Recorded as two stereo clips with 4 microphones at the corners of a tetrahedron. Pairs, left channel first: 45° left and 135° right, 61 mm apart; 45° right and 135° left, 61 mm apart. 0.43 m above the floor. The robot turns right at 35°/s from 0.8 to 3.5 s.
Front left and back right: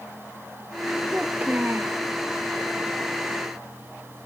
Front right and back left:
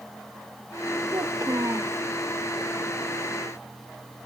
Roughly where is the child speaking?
Behind left.